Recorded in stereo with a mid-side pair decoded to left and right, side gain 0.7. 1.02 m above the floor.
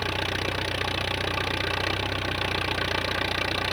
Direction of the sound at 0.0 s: Straight ahead.